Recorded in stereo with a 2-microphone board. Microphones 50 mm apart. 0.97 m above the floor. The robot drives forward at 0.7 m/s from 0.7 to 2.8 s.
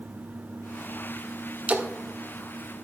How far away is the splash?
About 1.4 m.